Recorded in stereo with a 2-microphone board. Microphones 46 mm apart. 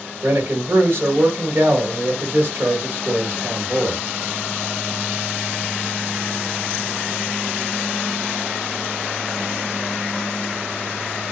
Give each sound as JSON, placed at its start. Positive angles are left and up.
{"t": 0.2, "sound": "a man speaking", "side_deg": -55, "distance_m": 1.4}